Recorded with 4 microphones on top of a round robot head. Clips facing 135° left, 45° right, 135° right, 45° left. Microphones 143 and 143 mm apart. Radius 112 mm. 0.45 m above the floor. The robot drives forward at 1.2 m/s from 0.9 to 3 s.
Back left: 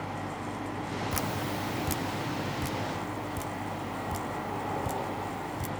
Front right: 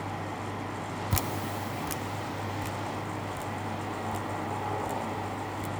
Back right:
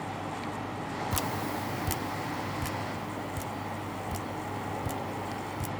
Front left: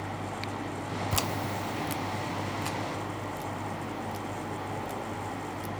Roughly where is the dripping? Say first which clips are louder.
Front right 1 dB, even; ahead right.